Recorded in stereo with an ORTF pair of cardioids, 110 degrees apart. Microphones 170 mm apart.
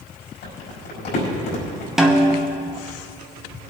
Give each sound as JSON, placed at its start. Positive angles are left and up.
{"t": 0.4, "sound": "crumpling", "azimuth_deg": 70, "distance_m": 5.0}
{"t": 2.0, "sound": "a snare drum", "azimuth_deg": -5, "distance_m": 1.5}